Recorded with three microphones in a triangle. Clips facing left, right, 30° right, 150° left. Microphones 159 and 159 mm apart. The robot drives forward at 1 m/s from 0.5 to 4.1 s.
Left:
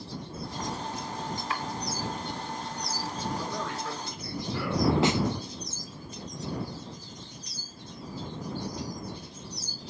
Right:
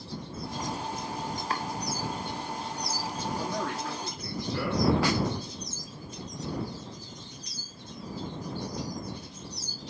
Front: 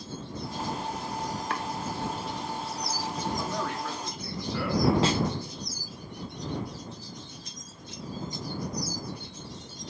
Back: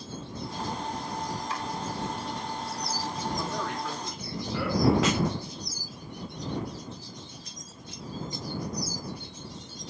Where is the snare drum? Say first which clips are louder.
Left 2 dB, even; 25° left, 0.7 m.